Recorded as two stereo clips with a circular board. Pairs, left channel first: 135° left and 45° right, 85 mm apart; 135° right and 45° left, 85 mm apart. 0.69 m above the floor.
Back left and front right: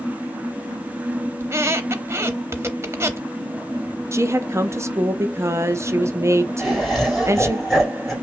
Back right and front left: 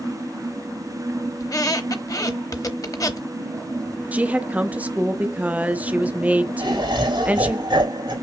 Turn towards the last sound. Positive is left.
turn(degrees=45)